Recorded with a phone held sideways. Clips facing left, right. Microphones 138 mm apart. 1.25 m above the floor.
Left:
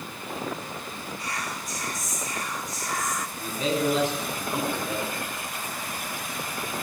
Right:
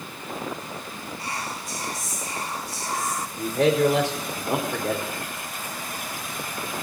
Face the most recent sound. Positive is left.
turn(degrees=-85)